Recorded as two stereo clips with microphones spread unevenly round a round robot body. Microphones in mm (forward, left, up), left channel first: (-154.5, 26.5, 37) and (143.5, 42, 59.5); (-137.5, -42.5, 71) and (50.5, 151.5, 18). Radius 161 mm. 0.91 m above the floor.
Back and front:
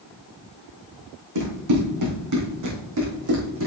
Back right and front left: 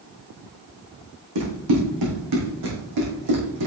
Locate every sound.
1.4 s running footsteps: 20° left, 3.5 m; by 3.7 s 45° left, 3.5 m